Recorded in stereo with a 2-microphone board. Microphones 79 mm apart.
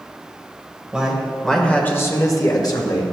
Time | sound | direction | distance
0.9 | a man speaking | 10° right (ahead or behind) | 2 m